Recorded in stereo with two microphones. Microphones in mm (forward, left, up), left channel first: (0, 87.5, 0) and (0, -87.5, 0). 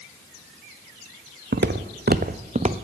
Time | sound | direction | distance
1.5 | footsteps | 80° right | 0.6 m